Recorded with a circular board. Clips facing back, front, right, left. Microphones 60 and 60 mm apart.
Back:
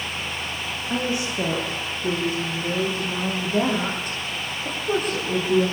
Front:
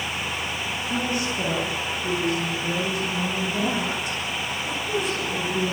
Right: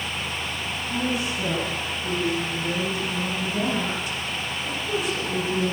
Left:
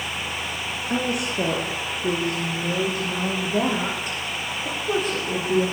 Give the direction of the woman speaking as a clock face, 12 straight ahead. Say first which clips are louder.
Back 2 dB, left 2 dB; 8 o'clock.